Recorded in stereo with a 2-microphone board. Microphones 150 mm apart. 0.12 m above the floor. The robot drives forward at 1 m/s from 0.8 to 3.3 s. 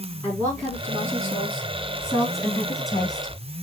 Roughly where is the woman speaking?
Centre.